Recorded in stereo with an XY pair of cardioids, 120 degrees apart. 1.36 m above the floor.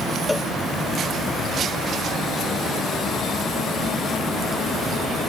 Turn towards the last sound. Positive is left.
turn(degrees=10)